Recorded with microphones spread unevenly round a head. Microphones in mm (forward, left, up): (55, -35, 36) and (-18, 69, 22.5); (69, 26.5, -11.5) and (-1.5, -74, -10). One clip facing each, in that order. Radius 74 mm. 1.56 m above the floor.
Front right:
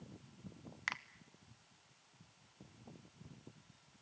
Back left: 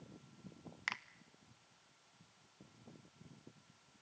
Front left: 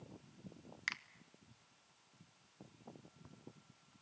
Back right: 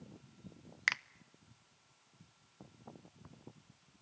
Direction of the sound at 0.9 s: 145° right.